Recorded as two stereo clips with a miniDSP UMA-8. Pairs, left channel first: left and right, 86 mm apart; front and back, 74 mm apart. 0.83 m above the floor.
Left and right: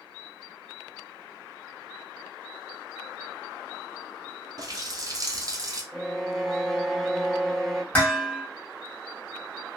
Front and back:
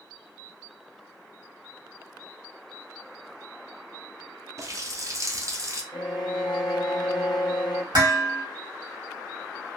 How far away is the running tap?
About 0.6 m.